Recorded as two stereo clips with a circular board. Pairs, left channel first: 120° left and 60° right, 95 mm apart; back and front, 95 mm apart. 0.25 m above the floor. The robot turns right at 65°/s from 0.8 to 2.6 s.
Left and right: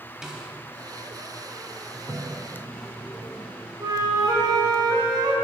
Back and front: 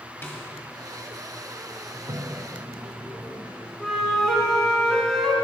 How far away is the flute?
About 1.4 m.